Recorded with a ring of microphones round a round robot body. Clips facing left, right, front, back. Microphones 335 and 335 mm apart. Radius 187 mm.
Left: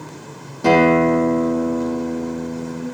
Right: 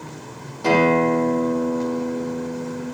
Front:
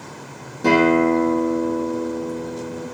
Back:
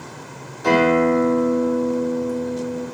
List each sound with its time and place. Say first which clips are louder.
0.6 s a guitar: left 3 dB, front 1 dB; 60° left, 8 m